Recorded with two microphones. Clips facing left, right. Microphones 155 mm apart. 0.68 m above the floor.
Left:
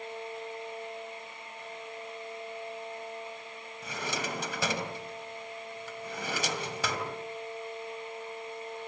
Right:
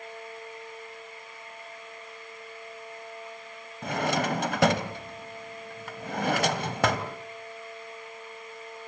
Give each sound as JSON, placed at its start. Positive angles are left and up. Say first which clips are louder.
{"t": 3.8, "sound": "a drawer", "louder": "right 9 dB", "side_deg": -65, "distance_m": 2.0}